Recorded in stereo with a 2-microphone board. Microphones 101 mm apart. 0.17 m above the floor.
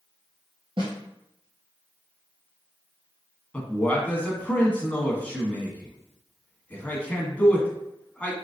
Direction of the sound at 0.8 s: 60° right (ahead or behind).